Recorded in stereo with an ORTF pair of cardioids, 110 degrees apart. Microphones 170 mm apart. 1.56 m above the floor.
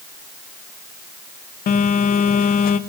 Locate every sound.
1.7 s a phone buzzing: 60° left, 0.9 m